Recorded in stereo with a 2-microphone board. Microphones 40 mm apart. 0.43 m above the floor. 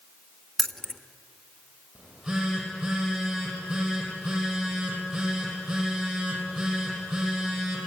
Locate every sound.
0.6 s keys jangling: 5° left (ahead or behind), 0.9 m
1.9 s a phone buzzing: 10° right (ahead or behind), 10 m